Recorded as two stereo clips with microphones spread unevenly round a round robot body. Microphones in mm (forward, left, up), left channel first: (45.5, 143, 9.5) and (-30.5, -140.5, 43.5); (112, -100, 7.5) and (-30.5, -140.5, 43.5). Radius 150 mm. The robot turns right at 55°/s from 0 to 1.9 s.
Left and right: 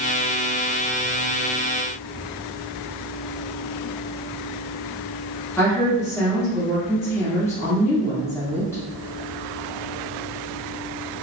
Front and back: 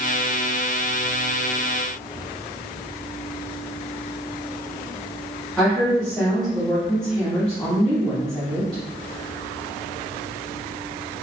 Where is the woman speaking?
35° left, 1.2 m.